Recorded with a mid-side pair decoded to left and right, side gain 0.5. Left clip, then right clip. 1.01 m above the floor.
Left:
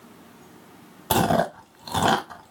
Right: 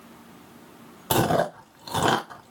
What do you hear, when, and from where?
1.1 s chewing: 10° left, 0.8 m